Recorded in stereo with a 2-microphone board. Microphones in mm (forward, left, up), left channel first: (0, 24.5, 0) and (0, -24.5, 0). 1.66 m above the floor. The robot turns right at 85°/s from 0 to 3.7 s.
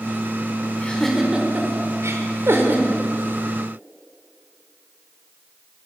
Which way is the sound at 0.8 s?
30° left (ahead or behind).